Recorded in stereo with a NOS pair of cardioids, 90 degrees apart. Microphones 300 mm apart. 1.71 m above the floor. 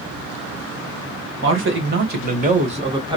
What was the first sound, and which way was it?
A man speaking, 45° right.